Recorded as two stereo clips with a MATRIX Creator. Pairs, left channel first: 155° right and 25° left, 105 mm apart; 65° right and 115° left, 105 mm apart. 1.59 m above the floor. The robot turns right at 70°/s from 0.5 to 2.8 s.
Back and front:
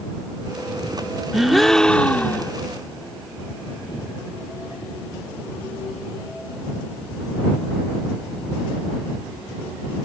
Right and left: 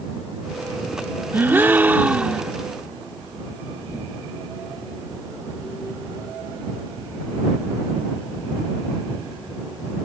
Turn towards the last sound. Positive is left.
turn(degrees=-160)